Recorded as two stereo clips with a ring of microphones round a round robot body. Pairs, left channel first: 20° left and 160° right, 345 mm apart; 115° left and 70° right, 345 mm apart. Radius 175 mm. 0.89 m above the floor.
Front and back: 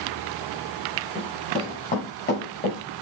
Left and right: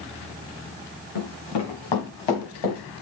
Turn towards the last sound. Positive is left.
turn(degrees=85)